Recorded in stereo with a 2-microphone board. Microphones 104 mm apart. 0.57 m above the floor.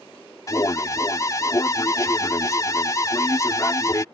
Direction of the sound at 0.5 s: 35° left (ahead or behind).